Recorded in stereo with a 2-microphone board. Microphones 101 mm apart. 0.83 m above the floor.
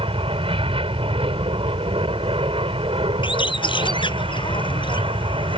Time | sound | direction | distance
0.0 | an aircraft | 65° right (ahead or behind) | ?
3.2 | a bird | 55° left (ahead or behind) | ?